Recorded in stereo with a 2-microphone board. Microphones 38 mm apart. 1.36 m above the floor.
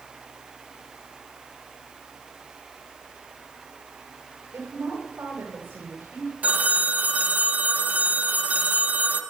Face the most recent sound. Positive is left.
turn(degrees=-40)  # may be behind; listen again after turning